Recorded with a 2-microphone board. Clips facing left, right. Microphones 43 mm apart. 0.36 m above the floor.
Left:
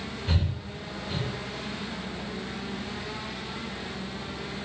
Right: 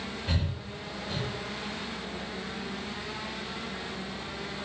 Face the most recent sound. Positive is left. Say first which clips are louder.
# left 4 dB
turn(degrees=0)  # may be behind; listen again after turning